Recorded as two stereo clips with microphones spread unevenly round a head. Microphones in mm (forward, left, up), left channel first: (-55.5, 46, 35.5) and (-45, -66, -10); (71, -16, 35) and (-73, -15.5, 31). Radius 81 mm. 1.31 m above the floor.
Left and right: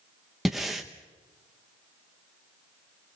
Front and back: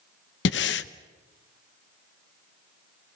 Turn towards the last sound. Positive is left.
turn(degrees=15)